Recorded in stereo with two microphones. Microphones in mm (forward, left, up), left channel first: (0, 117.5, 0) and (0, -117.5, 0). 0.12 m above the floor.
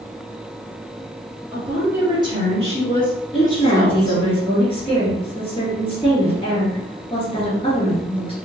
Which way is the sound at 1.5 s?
5° right (ahead or behind).